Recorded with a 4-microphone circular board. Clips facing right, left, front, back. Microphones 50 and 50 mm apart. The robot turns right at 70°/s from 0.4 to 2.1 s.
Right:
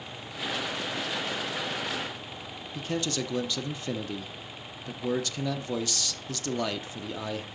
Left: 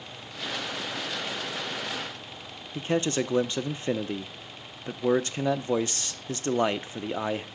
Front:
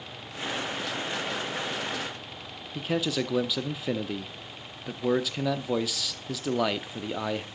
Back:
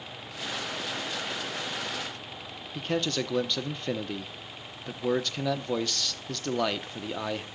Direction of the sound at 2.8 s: 80° left.